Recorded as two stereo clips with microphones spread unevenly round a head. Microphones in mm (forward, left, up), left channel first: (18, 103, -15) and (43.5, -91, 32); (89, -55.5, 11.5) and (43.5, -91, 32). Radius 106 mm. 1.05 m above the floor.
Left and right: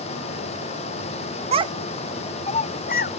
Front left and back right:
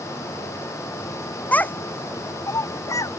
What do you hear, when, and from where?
1.5 s a child speaking: 20° right; by 3.1 s 60° left